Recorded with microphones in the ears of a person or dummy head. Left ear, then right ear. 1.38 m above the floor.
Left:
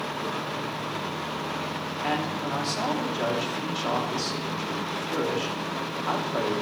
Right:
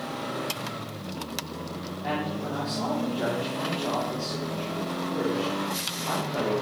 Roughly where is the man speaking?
Left.